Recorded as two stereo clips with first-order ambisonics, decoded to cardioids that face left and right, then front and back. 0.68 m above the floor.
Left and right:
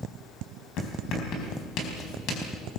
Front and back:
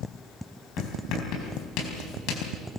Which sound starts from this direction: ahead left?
Writing, at 0.8 s.